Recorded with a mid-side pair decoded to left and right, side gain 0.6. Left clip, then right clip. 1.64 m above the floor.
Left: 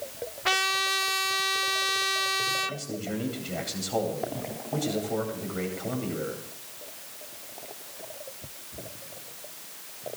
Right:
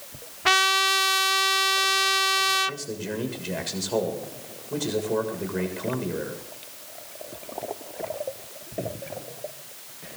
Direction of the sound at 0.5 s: 25° right.